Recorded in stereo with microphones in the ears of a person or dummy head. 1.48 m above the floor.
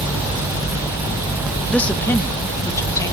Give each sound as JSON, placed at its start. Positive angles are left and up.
{"t": 1.7, "sound": "a woman speaking", "side_deg": 5, "distance_m": 1.2}